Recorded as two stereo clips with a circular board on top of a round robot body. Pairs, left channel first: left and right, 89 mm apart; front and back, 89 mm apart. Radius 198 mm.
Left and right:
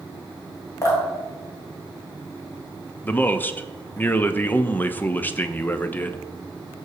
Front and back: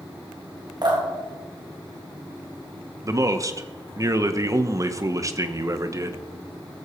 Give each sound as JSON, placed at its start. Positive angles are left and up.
{"t": 0.8, "sound": "dripping", "azimuth_deg": 145, "distance_m": 3.0}
{"t": 3.0, "sound": "a man speaking", "azimuth_deg": 150, "distance_m": 1.0}